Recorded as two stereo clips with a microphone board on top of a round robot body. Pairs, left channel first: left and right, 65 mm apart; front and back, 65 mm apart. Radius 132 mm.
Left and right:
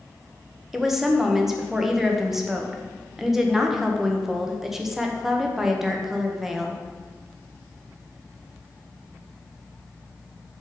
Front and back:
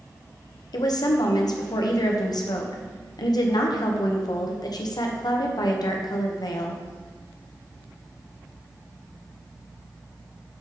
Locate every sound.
0.7 s a woman speaking: 5° right, 1.1 m